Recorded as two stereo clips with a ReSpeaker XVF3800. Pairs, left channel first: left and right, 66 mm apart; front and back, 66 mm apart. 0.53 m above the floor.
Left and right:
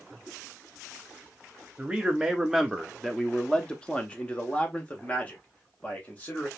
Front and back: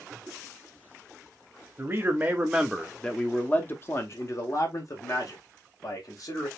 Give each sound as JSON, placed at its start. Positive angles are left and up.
{"t": 1.8, "sound": "a man speaking", "azimuth_deg": -160, "distance_m": 0.8}